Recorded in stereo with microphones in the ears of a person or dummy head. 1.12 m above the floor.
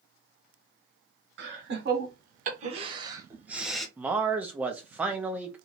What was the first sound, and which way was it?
Laughter, 60° right (ahead or behind).